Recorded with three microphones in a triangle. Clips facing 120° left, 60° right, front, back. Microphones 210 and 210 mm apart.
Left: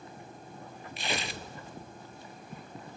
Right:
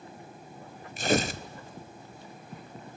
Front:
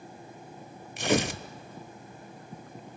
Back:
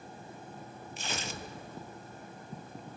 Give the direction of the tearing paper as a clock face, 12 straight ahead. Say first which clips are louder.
Right 10 dB, front 15 dB; 12 o'clock.